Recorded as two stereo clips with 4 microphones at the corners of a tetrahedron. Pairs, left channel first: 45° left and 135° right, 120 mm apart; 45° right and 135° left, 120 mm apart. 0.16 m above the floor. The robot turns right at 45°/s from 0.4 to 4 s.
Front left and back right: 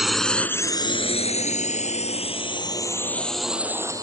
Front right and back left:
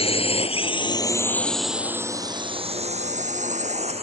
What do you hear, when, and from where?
0.0 s a drone: 45° right; by 4.0 s 165° left